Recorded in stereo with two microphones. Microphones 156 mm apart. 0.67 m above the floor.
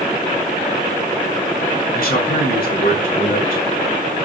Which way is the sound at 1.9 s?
65° left (ahead or behind).